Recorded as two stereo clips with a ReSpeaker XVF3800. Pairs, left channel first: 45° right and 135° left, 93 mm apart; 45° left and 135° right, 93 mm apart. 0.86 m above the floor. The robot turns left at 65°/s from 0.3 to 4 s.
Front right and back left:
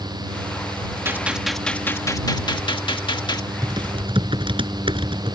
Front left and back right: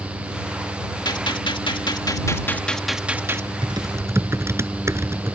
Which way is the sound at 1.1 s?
75° left.